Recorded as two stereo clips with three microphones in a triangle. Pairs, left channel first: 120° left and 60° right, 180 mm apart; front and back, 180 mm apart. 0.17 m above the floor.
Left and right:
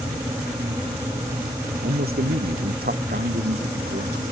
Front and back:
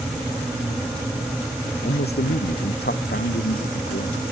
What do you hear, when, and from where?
1.8 s a man speaking: 25° right